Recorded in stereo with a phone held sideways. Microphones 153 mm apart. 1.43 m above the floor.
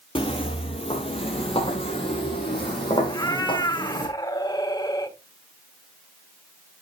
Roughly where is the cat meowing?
Left.